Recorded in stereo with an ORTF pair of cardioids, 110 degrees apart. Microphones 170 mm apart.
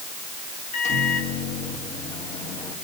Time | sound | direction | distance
0.7 | a microwave | 40° left | 3 m